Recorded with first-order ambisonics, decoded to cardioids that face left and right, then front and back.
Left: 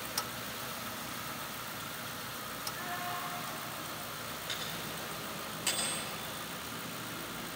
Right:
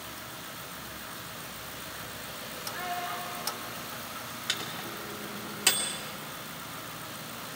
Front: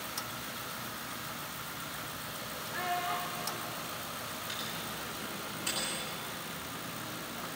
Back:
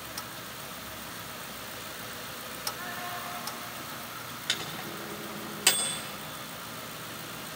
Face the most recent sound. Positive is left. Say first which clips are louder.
# right 6 dB, back 8 dB
turn(degrees=-145)